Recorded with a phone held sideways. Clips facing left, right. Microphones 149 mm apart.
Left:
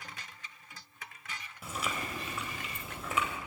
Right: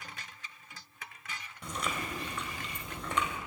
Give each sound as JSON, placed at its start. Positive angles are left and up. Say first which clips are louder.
{"t": 1.6, "sound": "chewing", "louder": "right 1 dB", "side_deg": 5, "distance_m": 3.0}